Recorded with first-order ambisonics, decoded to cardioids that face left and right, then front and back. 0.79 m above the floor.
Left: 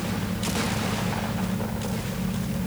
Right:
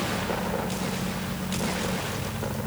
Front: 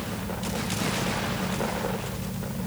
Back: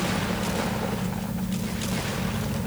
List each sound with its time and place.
Only background noise.